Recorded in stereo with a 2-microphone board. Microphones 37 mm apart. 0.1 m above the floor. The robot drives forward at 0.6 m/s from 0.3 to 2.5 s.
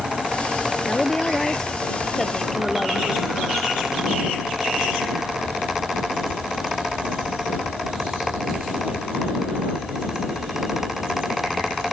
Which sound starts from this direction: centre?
A woman speaking, at 0.9 s.